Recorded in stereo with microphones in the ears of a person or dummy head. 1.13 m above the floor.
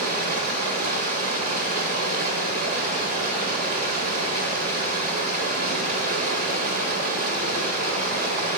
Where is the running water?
50° right (ahead or behind), 1.6 m.